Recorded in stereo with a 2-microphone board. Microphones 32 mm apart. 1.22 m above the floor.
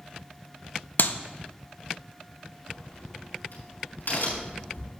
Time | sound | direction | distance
1.0 | a clap | 75° left (ahead or behind) | 0.6 m
2.6 | a crack | 85° left | 5 m